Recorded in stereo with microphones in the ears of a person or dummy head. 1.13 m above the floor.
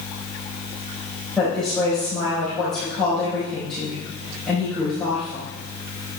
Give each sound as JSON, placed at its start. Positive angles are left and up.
{"t": 1.4, "sound": "a woman speaking", "side_deg": 0, "distance_m": 5.0}